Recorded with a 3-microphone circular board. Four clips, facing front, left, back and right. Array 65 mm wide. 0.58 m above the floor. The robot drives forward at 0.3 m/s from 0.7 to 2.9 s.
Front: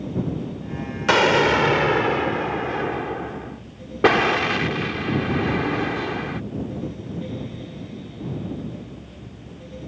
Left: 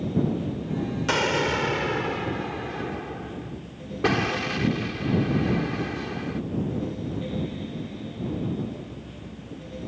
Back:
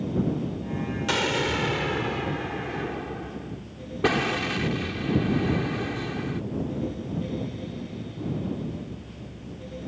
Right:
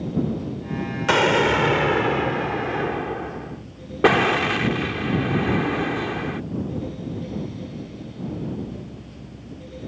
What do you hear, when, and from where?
1.1 s an explosion: 25° right; by 6.4 s 35° right